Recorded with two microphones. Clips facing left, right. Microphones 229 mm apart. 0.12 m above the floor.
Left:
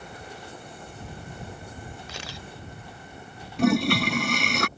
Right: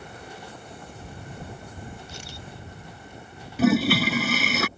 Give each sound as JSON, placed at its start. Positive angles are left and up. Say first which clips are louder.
{"t": 2.1, "sound": "a camera shutter", "louder": "left 1 dB", "side_deg": 85}
{"t": 3.6, "sound": "a toilet flushing", "louder": "right 2 dB", "side_deg": -5}